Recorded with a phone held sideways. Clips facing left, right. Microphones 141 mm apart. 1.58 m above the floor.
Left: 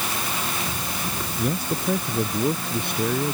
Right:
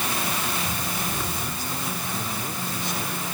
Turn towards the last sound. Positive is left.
turn(degrees=55)  # may be behind; listen again after turning